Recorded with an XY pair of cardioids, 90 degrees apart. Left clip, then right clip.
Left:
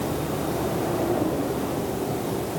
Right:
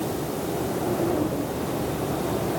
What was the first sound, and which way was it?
Only background noise.